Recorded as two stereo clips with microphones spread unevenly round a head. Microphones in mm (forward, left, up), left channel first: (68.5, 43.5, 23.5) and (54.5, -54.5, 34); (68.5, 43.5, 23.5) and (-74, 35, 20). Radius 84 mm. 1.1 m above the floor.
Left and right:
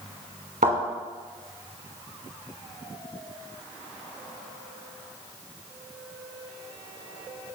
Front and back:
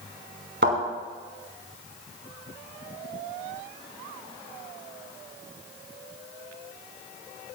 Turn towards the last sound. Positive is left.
turn(degrees=-140)